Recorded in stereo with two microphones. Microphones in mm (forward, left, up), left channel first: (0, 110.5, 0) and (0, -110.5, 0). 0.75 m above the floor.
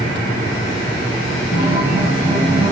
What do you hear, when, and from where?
1.5 s a guitar: 75° left (ahead or behind), 1.6 m